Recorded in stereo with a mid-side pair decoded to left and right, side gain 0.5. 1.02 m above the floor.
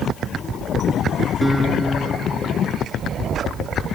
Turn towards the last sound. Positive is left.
turn(degrees=-5)